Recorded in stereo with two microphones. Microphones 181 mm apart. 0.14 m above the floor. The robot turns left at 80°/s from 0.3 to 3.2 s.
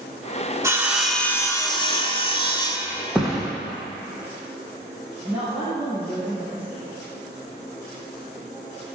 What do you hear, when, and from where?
0.6 s sawing: 145° right, 0.9 m; by 3.0 s 20° left, 0.9 m
3.1 s a thud: 5° right (ahead or behind), 1.7 m
5.2 s a woman speaking: 10° right (ahead or behind), 3 m